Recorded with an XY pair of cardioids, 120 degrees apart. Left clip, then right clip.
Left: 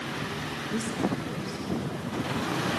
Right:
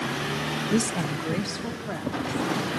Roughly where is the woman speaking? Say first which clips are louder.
Right 1 dB; ahead right.